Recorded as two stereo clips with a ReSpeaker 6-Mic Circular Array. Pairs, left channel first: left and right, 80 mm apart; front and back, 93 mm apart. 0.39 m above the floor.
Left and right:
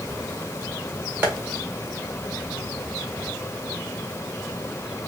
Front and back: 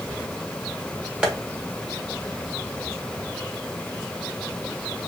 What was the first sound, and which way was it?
Tapping, 120° right.